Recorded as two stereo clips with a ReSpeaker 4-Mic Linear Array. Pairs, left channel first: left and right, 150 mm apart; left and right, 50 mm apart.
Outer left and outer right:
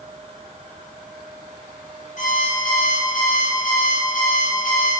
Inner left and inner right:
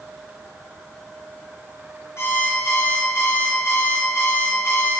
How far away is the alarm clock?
About 4 m.